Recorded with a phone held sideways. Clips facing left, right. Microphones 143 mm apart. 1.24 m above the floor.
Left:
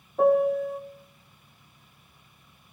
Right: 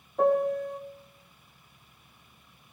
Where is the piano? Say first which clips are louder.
Left 3 dB; 5° left (ahead or behind), 0.6 m.